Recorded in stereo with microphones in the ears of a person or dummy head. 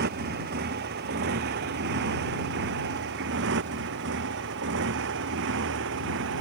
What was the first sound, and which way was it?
A motorcycle, 55° right (ahead or behind).